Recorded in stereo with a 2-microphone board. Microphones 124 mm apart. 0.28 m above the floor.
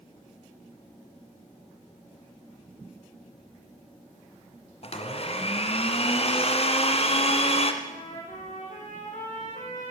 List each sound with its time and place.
4.8 s a blender: 50° left (ahead or behind), 2 m
7.8 s a trumpet: 80° left, 7.5 m